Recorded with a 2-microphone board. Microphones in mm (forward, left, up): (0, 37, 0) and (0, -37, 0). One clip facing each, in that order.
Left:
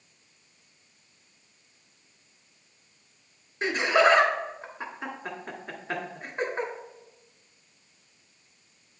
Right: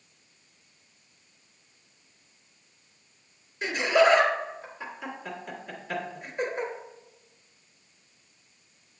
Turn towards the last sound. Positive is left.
turn(degrees=40)  # may be behind; listen again after turning